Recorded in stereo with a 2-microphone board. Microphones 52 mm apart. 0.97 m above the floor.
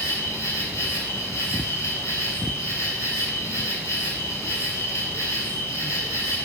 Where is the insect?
70° left (ahead or behind), 9.5 m.